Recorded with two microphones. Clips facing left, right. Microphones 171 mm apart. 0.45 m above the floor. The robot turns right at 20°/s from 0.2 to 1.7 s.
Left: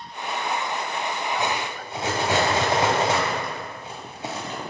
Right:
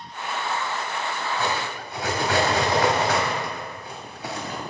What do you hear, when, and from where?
1.4 s cutlery clinking: 20° left (ahead or behind), 1.3 m; by 4.6 s 25° left (ahead or behind), 1.3 m